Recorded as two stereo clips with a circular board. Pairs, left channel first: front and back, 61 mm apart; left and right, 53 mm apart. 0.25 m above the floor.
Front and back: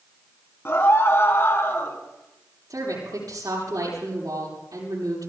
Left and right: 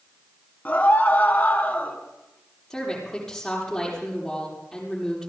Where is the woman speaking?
170° left, 8.5 m.